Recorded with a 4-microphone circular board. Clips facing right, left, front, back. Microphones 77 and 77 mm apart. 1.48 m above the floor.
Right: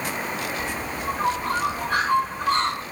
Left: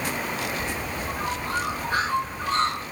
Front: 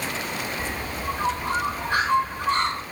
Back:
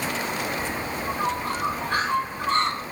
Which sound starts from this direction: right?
A bird, at 0.6 s.